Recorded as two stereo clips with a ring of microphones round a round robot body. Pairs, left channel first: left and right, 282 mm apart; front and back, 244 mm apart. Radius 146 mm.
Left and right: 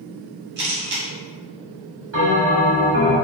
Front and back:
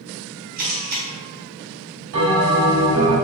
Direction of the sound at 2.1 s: 140° right.